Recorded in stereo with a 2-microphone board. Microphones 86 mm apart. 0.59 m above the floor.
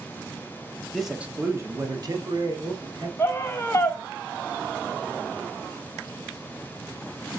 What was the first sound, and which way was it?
A man speaking, 5° left (ahead or behind).